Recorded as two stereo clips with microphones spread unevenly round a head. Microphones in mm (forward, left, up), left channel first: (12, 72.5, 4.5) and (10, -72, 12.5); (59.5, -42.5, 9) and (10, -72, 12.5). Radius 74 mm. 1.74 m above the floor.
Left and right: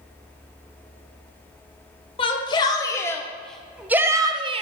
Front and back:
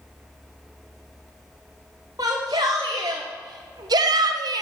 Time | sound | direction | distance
2.2 | a shout | 145° left | 1.4 m